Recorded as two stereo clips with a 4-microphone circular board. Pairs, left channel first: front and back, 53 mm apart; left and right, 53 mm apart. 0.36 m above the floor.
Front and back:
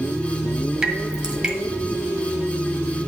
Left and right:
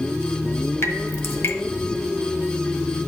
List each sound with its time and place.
0.8 s dripping: 110° left, 1.4 m